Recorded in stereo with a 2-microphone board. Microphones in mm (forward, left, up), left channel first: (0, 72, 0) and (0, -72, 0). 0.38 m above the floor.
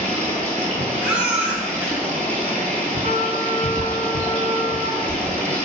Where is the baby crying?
10° right (ahead or behind), 0.6 m.